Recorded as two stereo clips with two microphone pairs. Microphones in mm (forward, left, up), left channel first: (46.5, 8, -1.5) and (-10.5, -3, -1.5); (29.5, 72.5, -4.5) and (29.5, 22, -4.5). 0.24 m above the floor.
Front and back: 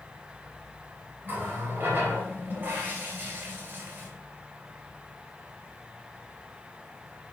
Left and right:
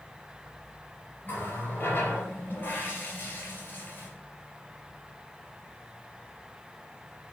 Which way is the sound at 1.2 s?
135° left.